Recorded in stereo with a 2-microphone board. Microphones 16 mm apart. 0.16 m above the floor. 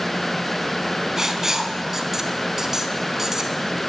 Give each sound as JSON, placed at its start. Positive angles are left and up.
{"t": 1.2, "sound": "writing", "side_deg": -25, "distance_m": 0.6}